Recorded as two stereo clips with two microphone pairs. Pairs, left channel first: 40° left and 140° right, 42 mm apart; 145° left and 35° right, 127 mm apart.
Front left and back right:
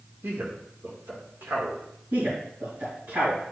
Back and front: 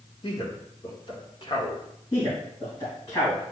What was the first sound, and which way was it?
A man speaking, 170° right.